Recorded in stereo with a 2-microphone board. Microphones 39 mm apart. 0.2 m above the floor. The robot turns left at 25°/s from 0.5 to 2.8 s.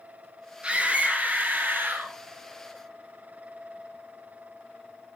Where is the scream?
30° right, 3 m; by 2.1 s 70° right, 3 m.